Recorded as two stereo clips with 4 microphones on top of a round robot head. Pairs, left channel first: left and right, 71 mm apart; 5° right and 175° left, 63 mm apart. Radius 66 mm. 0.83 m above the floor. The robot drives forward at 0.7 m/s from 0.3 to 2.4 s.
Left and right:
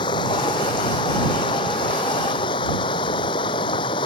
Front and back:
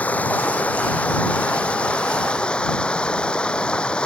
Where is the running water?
60° left; by 4.1 s 70° left.